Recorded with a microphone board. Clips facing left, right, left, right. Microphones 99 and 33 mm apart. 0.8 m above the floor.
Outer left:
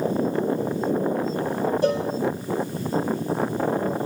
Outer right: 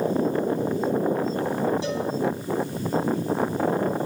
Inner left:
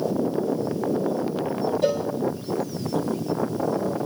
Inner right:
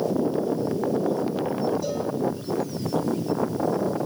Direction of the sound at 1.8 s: 50° left (ahead or behind).